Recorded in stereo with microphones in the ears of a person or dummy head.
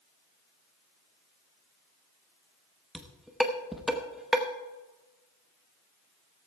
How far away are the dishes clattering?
About 0.9 m.